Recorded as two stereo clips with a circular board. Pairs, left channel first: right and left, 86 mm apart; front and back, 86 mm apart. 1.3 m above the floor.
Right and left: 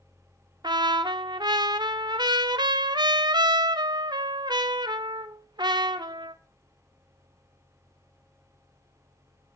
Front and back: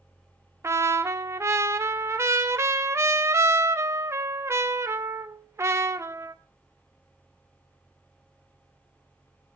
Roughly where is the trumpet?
Behind left.